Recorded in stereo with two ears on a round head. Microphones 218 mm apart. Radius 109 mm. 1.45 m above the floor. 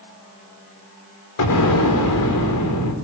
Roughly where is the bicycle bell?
I don't hear a bicycle bell.